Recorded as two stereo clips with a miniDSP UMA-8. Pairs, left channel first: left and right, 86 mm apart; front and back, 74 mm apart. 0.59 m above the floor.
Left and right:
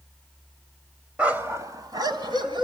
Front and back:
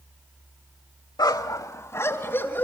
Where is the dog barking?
15° right, 1.0 m; by 2.6 s 65° right, 2.5 m.